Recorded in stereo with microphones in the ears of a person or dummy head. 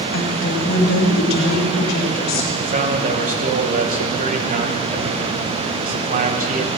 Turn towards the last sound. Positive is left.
turn(degrees=-45)  # may be behind; listen again after turning